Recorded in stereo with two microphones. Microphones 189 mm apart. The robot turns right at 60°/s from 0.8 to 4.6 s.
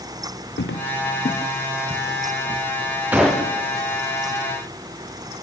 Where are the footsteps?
75° left (ahead or behind), 1.0 m; by 2.6 s 40° right (ahead or behind), 3 m.